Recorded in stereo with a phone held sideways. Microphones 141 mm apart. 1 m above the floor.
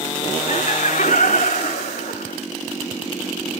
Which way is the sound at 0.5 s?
60° left (ahead or behind).